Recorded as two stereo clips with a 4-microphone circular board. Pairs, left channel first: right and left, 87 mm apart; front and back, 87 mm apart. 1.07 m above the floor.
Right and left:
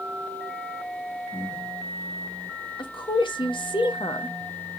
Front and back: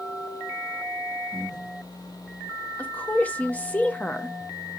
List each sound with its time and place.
1.3 s breathing: 25° right, 1.2 m
2.8 s a woman speaking: 70° right, 0.8 m